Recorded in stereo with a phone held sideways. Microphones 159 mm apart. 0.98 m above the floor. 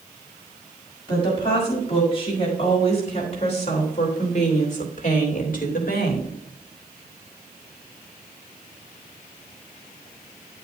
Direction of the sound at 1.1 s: 35° left (ahead or behind).